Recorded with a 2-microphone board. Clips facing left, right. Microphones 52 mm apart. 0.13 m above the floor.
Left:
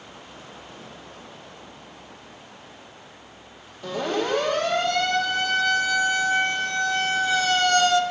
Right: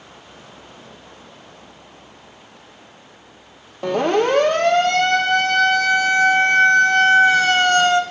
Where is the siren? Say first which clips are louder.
Right 8 dB; 55° right (ahead or behind), 4 m; by 8.0 s 30° right (ahead or behind), 1.6 m.